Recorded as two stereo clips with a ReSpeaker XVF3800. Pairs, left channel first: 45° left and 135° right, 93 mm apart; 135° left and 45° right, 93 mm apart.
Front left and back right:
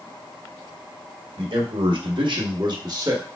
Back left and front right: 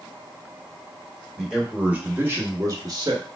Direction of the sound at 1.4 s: 130° right.